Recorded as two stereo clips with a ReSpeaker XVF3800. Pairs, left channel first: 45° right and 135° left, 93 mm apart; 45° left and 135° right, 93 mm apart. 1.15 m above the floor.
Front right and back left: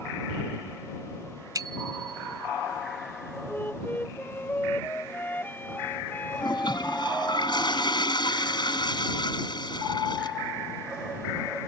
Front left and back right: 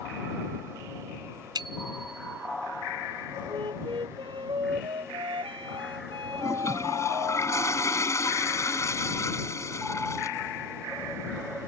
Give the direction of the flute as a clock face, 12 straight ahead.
4 o'clock.